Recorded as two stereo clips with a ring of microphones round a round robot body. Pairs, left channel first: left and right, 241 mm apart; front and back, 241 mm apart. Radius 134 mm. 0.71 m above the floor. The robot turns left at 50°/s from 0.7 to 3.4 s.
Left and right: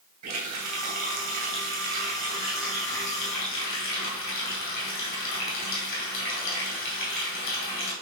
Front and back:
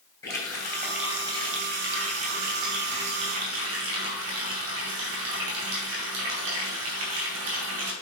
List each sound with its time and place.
0.2 s a running tap: 80° right, 2.5 m; by 7.9 s 145° left, 2.5 m